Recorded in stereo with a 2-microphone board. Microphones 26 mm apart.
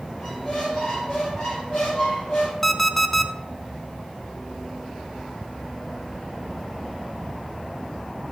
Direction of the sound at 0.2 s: 45° left (ahead or behind).